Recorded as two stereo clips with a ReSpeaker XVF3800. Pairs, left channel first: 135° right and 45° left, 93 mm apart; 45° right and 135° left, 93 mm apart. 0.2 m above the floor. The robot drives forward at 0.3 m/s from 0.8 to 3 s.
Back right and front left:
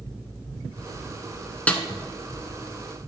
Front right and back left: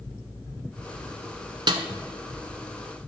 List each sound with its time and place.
1.7 s a snare drum: 155° left, 0.8 m